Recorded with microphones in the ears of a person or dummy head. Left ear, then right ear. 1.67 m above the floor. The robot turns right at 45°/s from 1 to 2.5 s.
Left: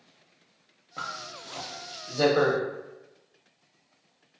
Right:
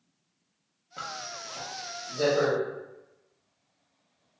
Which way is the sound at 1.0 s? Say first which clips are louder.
Left 1 dB; 5° right (ahead or behind).